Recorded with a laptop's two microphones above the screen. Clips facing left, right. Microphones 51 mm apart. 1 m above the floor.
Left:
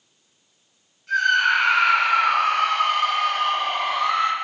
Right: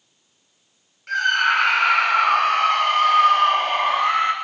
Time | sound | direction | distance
1.1 | a scream | 60° right (ahead or behind) | 2 m